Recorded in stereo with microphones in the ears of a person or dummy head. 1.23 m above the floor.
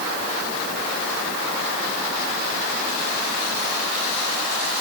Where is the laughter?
I don't hear laughter.